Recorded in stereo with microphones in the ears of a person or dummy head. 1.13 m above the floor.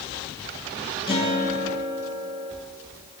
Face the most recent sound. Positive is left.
turn(degrees=30)  # may be behind; listen again after turning